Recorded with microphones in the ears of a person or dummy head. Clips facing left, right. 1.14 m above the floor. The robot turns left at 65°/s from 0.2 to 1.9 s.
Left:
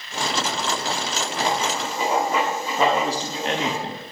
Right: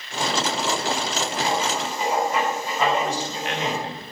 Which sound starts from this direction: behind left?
Writing, at 1.4 s.